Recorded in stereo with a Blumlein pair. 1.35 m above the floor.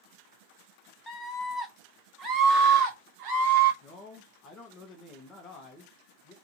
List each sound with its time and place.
1.1 s a scream: 15° left, 1.2 m; by 3.7 s 50° right, 1.7 m
3.8 s a man speaking: 25° left, 1.1 m